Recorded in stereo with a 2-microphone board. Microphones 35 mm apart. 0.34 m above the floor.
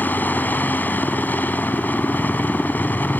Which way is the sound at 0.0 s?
60° left (ahead or behind).